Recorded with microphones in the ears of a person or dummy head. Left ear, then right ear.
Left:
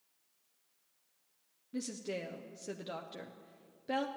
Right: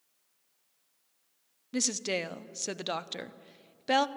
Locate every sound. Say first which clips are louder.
1.7 s a woman speaking: right 9 dB; 50° right (ahead or behind), 0.5 m